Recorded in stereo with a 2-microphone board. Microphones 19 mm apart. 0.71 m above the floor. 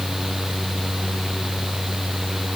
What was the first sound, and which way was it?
Only background noise.